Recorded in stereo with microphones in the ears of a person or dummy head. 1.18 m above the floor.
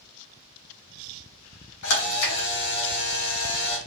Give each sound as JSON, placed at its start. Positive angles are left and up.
{"t": 1.8, "sound": "a camera shutter", "side_deg": 70, "distance_m": 0.7}